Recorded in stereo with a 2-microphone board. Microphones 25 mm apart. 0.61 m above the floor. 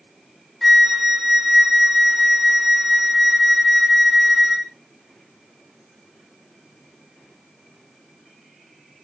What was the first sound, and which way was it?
A flute, centre (ahead or behind).